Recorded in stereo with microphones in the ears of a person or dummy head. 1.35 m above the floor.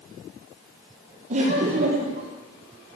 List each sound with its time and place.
1.3 s laughter: 45° right (ahead or behind), 1.0 m